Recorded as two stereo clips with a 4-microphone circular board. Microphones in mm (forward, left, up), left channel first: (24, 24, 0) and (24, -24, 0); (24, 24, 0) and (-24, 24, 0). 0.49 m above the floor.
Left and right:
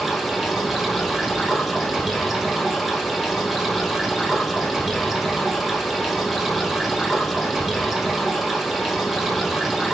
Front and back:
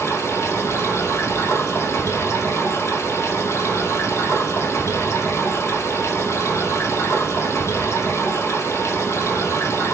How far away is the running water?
About 4.5 m.